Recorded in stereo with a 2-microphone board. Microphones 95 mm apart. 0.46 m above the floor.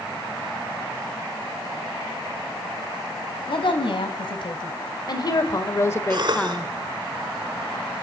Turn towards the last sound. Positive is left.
turn(degrees=-55)  # may be behind; listen again after turning